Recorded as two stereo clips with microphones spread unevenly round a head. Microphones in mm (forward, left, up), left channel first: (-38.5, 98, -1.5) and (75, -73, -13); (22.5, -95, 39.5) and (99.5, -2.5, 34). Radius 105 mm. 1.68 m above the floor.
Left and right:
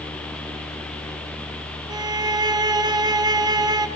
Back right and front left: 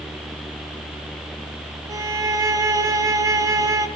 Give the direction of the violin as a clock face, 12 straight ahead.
12 o'clock.